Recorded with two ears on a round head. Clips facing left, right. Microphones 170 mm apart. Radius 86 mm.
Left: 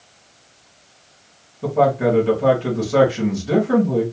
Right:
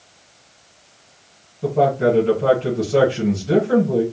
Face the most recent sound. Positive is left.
turn(degrees=15)  # may be behind; listen again after turning